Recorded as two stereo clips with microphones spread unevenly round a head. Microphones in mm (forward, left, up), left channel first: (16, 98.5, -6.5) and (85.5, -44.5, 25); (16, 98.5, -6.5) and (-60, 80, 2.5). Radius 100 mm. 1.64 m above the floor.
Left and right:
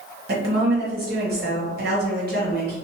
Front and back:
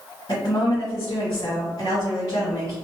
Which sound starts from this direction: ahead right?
A woman speaking, at 0.3 s.